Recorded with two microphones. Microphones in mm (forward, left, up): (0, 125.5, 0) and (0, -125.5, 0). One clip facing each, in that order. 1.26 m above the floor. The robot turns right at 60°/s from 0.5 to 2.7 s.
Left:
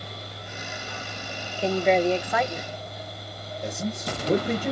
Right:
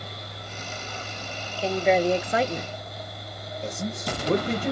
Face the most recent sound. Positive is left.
turn(degrees=5)  # may be behind; listen again after turning